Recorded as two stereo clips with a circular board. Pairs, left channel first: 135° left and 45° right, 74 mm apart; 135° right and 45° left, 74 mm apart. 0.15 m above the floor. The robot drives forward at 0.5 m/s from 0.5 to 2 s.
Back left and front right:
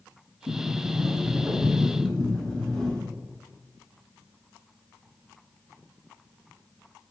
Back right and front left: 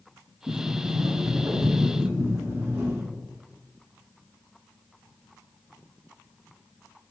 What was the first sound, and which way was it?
A sliding door, 30° left.